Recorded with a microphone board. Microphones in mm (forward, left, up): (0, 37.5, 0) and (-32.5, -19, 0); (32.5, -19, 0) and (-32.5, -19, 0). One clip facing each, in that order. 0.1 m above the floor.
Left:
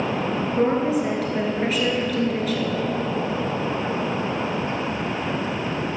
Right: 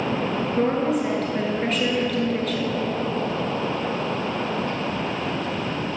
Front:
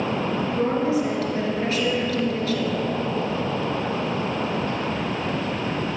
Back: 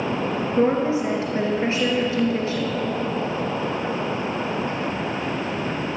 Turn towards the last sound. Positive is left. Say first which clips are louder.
# left 1 dB, back 3 dB
turn(degrees=145)